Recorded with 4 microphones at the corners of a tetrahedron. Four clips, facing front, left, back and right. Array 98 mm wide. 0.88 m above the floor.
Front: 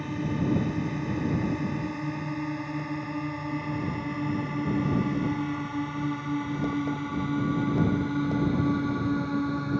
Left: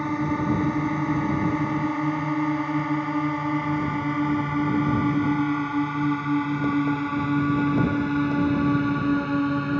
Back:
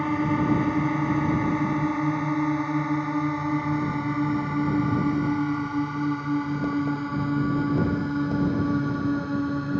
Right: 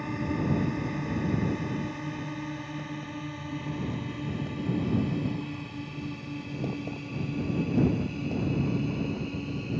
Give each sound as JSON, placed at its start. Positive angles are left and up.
{"t": 0.0, "sound": "a drone", "azimuth_deg": 140}